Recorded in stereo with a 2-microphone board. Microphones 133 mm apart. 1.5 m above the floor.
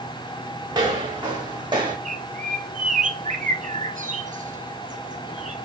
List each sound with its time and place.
0.7 s footsteps: 35° right (ahead or behind), 4 m
2.0 s a bird: 75° right (ahead or behind), 1.0 m